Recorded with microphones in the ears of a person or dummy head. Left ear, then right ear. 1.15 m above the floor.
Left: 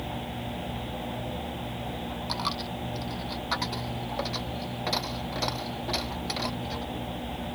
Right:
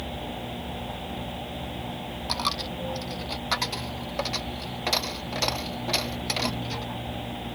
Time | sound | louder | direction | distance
2.3 | a dropped coin | right 4 dB | 10° right (ahead or behind) | ?